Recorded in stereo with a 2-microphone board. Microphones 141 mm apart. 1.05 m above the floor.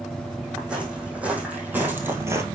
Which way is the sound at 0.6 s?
5° right (ahead or behind).